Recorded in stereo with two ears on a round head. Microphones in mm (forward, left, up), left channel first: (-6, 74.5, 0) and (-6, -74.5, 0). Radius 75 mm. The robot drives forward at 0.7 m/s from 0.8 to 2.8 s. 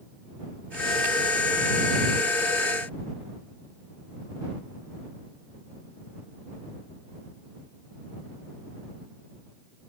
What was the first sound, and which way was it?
Only background noise.